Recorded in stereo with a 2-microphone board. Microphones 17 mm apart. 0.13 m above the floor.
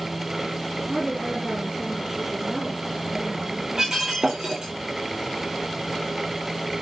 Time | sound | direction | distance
0.9 | a woman speaking | 20° right (ahead or behind) | 3 m
3.8 | breaking glass | 35° right (ahead or behind) | 6 m